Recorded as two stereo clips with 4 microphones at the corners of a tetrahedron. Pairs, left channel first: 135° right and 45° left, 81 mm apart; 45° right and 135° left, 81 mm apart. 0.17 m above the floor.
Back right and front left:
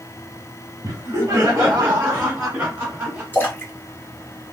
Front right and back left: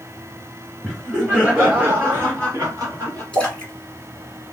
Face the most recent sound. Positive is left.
turn(degrees=-110)